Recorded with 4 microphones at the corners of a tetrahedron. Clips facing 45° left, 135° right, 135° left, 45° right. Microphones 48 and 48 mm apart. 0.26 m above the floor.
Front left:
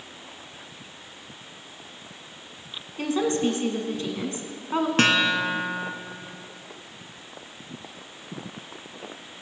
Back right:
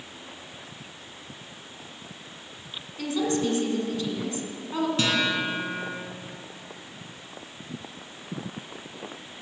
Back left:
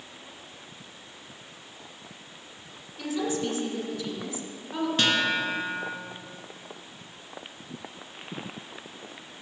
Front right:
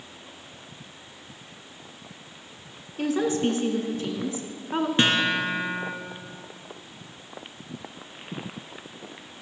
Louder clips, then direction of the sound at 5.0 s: Front left 6 dB, front right 2 dB; 15° left.